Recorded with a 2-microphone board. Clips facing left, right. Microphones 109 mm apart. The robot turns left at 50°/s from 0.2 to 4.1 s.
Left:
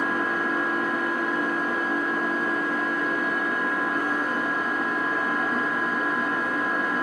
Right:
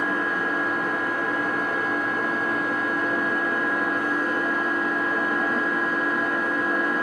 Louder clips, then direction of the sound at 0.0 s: Even; 10° left.